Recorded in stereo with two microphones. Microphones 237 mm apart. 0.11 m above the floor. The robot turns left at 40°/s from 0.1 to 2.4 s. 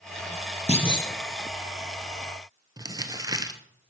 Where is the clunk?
30° left (ahead or behind), 1.6 m; by 1.1 s 15° left (ahead or behind), 1.6 m.